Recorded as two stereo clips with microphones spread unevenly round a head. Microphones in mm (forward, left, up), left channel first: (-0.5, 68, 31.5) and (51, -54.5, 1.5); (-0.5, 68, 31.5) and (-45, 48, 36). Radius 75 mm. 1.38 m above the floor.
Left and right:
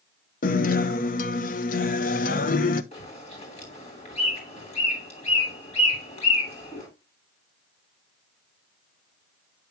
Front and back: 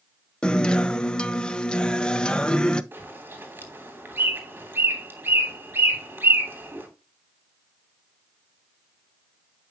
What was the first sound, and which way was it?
A guitar, 95° left.